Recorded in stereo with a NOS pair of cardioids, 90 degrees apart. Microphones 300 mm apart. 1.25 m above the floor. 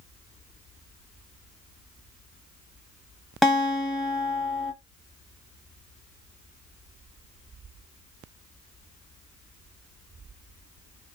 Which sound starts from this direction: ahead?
A guitar, at 3.4 s.